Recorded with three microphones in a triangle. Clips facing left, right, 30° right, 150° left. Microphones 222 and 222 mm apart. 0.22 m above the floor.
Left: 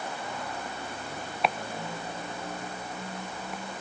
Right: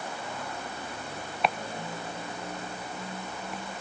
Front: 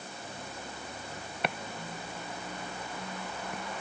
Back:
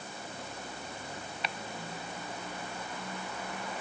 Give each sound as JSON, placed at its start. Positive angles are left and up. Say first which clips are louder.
{"t": 1.4, "sound": "chopping", "louder": "even, front 6 dB", "azimuth_deg": 0}